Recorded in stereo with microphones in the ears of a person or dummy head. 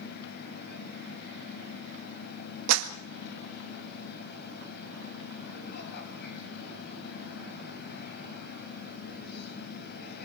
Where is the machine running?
55° left (ahead or behind), 4 m.